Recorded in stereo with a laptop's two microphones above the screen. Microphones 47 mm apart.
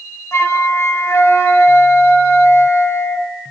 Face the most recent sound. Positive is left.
turn(degrees=80)